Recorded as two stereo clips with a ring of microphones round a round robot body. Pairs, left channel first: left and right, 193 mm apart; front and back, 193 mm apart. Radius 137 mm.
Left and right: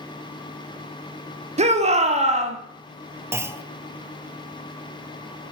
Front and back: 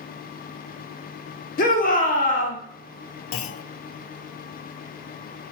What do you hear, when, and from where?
1.6 s a shout: 40° right, 1.4 m
3.3 s a clunk: 10° right, 0.7 m